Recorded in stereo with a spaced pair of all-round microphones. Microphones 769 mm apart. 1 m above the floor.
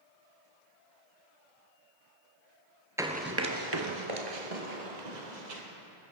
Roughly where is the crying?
I don't hear crying.